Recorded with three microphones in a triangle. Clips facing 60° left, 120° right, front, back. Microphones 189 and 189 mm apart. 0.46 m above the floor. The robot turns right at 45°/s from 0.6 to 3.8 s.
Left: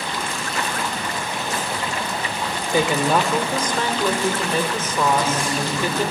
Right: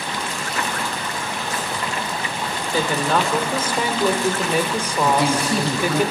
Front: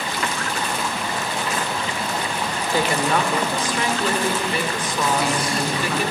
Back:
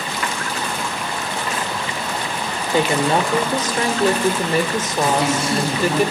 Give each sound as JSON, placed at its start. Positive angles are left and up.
{"t": 2.7, "sound": "a woman speaking", "azimuth_deg": 120, "distance_m": 1.7}
{"t": 5.1, "sound": "a man speaking", "azimuth_deg": -120, "distance_m": 3.5}